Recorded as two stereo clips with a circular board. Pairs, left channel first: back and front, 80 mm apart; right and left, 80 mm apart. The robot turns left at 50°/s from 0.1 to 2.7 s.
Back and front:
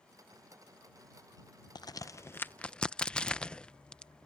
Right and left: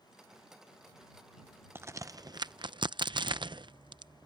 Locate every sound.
1.8 s a crack: 150° left; by 4.3 s 100° left